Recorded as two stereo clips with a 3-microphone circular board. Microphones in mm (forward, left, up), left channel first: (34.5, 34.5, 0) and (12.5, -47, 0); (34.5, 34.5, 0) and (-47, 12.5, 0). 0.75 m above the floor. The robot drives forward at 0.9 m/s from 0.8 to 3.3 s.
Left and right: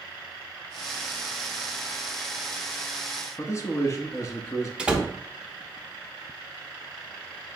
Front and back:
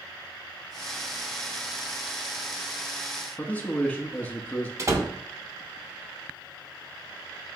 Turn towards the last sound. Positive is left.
turn(degrees=-175)